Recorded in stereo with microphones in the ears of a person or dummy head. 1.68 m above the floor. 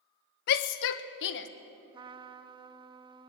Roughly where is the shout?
Left.